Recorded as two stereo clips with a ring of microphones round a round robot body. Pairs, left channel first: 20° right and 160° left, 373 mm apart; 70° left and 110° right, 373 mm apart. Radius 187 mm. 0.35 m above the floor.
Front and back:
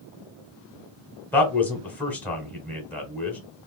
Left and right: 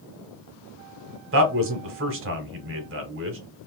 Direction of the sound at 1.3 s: 105° right.